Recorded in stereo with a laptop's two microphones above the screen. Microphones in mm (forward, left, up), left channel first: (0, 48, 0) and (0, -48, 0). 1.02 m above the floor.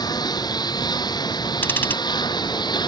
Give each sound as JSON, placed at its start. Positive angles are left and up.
{"t": 0.0, "sound": "a lawn mower", "side_deg": 45}
{"t": 1.6, "sound": "ticking", "side_deg": 20}